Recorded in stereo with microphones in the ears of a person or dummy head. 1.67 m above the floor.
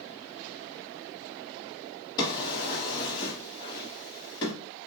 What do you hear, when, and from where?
2.2 s a drawer: 25° left (ahead or behind), 1.7 m